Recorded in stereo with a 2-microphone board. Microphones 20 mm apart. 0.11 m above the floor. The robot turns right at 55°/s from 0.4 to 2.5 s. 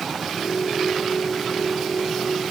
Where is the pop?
I don't hear a pop.